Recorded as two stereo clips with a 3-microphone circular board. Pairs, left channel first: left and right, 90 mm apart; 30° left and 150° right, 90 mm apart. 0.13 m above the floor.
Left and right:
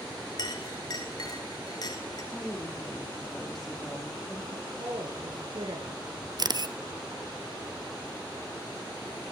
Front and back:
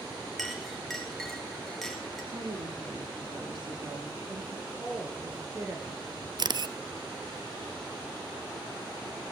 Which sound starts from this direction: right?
A woman speaking, at 4.5 s.